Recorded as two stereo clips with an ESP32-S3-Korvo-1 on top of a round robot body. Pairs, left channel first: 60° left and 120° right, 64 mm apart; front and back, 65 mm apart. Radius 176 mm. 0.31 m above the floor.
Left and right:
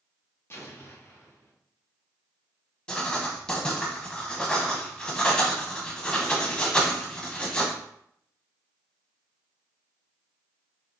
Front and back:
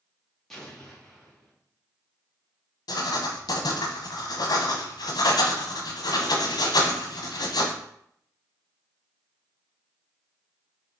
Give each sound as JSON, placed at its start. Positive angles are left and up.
{"t": 0.5, "sound": "an explosion", "azimuth_deg": 85, "distance_m": 1.9}
{"t": 2.9, "sound": "writing", "azimuth_deg": -20, "distance_m": 0.6}